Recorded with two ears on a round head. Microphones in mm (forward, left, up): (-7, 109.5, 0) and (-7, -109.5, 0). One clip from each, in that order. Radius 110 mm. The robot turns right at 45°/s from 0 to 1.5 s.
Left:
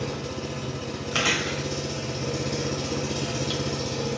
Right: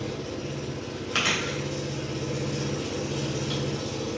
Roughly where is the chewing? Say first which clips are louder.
Left 1 dB; centre.